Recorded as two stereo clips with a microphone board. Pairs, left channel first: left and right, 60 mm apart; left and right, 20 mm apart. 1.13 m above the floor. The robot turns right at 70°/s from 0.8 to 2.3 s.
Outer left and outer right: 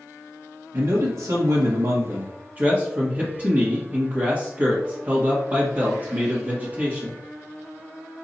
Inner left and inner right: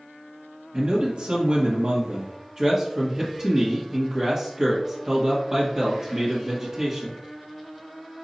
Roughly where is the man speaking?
Behind right.